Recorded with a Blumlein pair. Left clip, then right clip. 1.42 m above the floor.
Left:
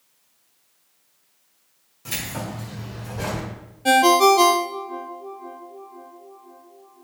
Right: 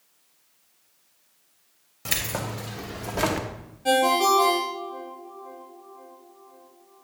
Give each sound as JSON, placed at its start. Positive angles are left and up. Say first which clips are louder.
{"t": 2.0, "sound": "keys jangling", "louder": "right 2 dB", "azimuth_deg": -25, "distance_m": 1.6}
{"t": 3.9, "sound": "a ringtone", "louder": "left 5 dB", "azimuth_deg": 70, "distance_m": 0.8}